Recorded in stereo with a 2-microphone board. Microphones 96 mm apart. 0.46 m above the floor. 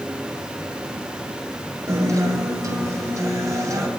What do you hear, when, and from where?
1.9 s a guitar: 35° right (ahead or behind), 2 m